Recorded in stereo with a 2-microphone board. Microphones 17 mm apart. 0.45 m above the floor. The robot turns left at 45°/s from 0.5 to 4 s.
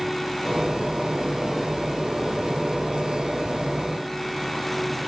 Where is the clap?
I don't hear a clap.